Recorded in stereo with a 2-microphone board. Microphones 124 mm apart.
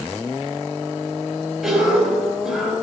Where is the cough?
Centre (ahead or behind), 4.5 m.